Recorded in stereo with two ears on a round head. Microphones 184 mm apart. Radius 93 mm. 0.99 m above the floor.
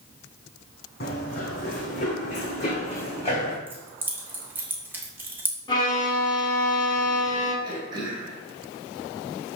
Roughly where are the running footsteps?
Left.